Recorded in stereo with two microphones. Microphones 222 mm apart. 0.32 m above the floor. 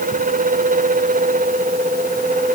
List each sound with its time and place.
Only background noise.